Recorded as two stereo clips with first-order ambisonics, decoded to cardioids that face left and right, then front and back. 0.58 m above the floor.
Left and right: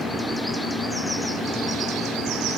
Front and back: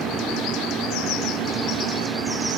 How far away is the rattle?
No rattle in this recording.